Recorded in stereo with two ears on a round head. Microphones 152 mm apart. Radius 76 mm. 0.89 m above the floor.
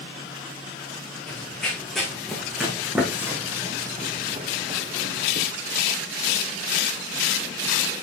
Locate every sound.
1.3 s running footsteps: 5° left (ahead or behind), 4.5 m; by 5.5 s 60° right (ahead or behind), 2.0 m